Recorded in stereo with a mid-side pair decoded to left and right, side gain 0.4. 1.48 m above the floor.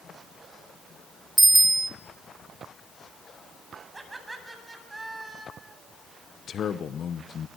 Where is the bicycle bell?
20° right, 3 m.